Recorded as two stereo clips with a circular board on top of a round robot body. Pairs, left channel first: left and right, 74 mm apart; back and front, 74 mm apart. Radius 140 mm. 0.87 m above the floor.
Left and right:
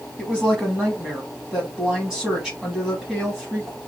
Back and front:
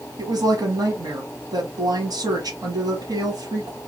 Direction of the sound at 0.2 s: 5° right.